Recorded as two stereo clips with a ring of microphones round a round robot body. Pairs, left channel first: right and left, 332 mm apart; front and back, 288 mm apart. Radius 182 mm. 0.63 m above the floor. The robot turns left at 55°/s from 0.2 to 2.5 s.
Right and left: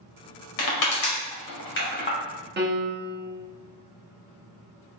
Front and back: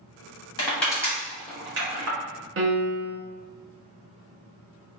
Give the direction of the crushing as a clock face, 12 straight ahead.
2 o'clock.